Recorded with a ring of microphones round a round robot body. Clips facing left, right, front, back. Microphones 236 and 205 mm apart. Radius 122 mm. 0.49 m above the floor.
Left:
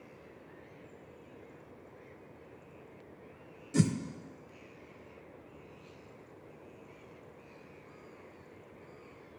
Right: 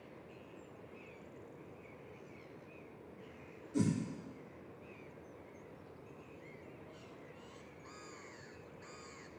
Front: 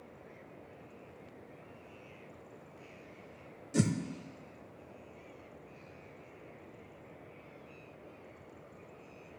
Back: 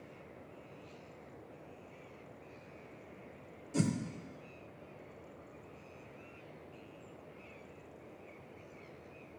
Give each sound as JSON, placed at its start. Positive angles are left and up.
{"t": 3.7, "sound": "a whoosh", "azimuth_deg": 75, "distance_m": 0.6}